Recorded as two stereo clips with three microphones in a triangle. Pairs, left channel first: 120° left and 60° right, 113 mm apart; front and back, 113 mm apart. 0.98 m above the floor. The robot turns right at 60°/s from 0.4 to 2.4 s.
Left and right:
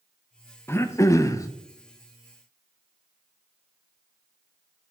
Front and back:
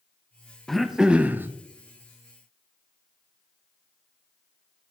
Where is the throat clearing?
85° left, 0.6 m; by 1.5 s 135° left, 0.6 m.